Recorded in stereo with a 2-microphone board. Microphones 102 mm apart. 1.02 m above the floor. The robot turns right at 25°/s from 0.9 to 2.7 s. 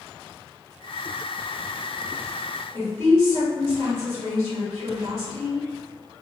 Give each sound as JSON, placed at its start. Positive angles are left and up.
{"t": 2.7, "sound": "a woman speaking", "side_deg": -55, "distance_m": 1.9}